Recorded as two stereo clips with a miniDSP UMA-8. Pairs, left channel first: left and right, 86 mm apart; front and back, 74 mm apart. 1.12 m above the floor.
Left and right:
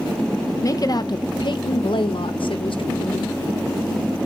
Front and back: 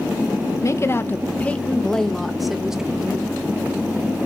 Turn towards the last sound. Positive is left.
turn(degrees=105)